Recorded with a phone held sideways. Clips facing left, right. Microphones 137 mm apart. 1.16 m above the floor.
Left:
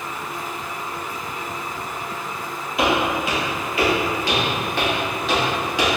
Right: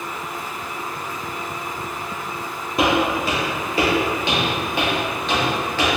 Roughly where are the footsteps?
Right.